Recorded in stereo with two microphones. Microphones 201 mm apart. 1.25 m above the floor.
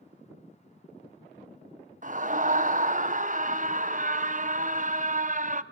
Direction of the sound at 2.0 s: 40° right (ahead or behind).